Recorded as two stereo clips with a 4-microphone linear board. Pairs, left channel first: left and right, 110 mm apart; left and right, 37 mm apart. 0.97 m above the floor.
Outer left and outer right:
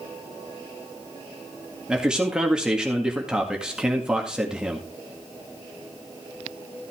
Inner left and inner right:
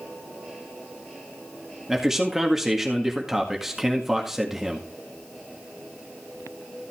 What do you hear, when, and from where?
1.9 s a man speaking: 10° right (ahead or behind), 1.9 m